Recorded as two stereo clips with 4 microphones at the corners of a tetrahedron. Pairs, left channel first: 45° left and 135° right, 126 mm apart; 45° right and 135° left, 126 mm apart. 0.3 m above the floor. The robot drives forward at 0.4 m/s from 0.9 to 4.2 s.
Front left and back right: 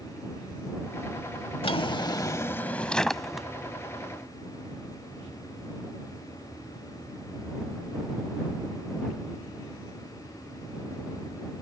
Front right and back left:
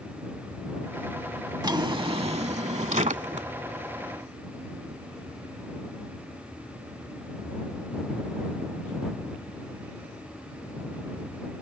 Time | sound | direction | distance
1.6 | a drawer | 85° left | ?